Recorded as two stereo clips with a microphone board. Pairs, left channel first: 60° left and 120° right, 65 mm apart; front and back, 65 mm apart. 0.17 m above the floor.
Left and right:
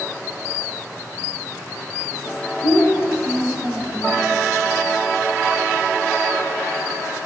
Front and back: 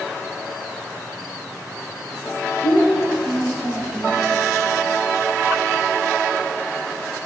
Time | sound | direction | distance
2.6 | a child speaking | 165° right | 6.5 m